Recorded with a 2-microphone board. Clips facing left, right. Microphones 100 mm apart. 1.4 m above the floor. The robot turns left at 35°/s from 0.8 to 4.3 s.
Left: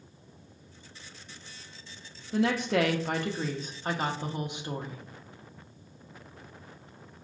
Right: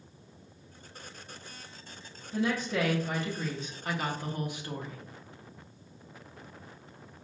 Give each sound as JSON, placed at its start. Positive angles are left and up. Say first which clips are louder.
{"t": 2.3, "sound": "a woman speaking", "louder": "left 4 dB", "azimuth_deg": 90, "distance_m": 0.6}